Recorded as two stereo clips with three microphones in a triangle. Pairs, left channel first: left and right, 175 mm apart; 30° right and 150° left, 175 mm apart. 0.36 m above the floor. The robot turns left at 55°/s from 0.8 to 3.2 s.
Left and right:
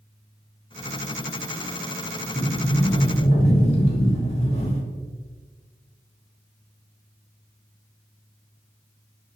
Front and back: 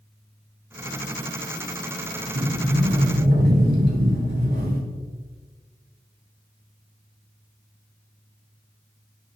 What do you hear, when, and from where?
2.4 s a sliding door: 175° right, 1.1 m; by 4.8 s 140° left, 1.1 m